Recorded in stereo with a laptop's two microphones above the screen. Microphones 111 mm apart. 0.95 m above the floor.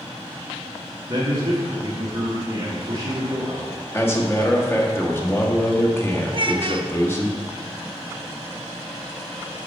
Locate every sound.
1.1 s a man speaking: 40° right (ahead or behind), 1.1 m
3.9 s a man speaking: 20° left (ahead or behind), 1.3 m
6.3 s a child speaking: 50° right (ahead or behind), 0.6 m